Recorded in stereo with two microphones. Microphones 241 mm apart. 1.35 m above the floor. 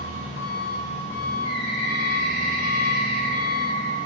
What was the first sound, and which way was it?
An engine running, 65° right (ahead or behind).